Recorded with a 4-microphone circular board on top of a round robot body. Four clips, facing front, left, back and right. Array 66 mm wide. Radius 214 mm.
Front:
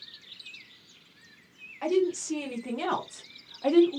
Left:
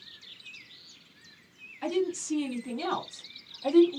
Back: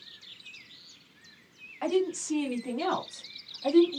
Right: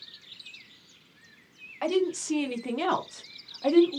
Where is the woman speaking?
100° right, 1.3 m; by 4.0 s 30° right, 0.8 m.